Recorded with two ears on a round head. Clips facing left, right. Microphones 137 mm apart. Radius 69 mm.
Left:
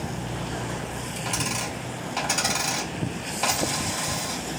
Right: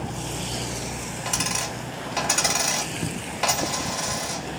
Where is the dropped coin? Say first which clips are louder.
Even; 5° right (ahead or behind), 2 m.